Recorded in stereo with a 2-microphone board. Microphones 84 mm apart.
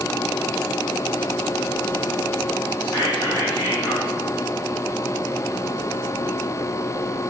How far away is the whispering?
About 3.5 m.